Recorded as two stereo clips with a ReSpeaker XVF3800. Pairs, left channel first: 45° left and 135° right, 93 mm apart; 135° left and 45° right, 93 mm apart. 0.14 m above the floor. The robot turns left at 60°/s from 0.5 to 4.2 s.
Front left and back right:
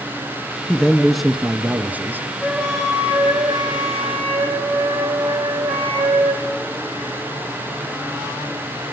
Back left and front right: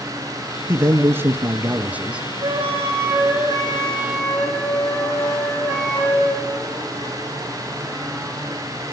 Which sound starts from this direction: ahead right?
A flute, at 2.4 s.